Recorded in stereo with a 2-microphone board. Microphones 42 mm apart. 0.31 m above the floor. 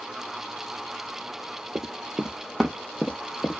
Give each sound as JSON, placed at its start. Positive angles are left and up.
{"t": 1.8, "sound": "running footsteps", "side_deg": -50, "distance_m": 0.7}